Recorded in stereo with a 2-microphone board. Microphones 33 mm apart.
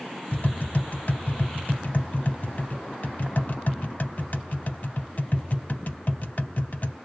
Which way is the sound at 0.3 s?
55° left (ahead or behind).